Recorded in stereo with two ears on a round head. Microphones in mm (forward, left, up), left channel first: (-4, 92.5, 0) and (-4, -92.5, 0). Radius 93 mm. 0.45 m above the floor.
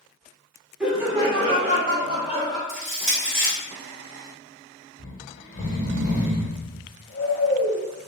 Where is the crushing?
Centre (ahead or behind), 1.9 m.